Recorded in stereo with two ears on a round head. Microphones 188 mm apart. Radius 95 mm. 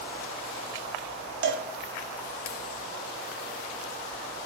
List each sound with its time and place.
1.4 s a cowbell: 60° right (ahead or behind), 0.8 m